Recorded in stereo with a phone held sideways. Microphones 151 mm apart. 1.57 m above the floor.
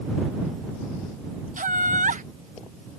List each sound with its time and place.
1.6 s laughter: 60° right (ahead or behind)